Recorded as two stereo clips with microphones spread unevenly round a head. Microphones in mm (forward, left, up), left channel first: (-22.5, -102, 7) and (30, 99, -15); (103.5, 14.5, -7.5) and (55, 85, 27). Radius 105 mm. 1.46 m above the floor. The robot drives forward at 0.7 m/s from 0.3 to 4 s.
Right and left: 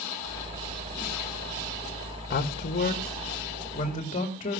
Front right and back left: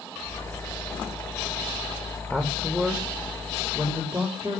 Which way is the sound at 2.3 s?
155° right.